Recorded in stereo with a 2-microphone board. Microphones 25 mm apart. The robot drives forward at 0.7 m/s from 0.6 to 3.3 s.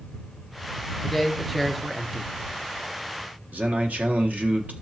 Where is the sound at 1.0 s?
5° right (ahead or behind), 1.6 m.